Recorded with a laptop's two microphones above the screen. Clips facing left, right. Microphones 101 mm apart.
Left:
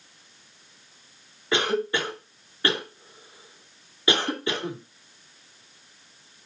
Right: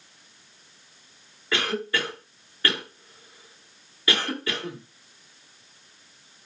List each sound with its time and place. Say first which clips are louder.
1.5 s a cough: left 3 dB; 20° left (ahead or behind), 2 m